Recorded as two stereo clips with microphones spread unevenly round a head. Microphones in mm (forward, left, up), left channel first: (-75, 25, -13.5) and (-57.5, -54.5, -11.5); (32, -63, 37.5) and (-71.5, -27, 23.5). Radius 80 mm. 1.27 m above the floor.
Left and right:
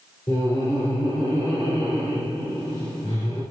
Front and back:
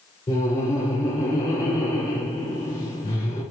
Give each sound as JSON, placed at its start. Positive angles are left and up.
{"t": 0.3, "sound": "laughter", "azimuth_deg": 35, "distance_m": 3.0}